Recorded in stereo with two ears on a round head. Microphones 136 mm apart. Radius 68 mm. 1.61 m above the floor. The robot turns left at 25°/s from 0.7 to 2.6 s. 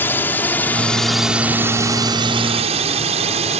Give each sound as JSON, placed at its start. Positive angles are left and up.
{"t": 0.0, "sound": "a drone", "side_deg": 15}